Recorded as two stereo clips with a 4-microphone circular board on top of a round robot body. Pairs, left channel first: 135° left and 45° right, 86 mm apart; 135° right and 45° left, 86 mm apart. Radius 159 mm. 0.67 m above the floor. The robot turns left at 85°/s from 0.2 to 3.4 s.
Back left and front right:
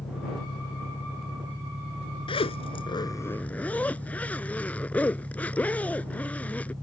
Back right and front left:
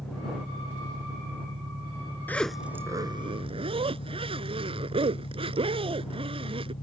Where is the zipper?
155° left; by 6.7 s 60° left.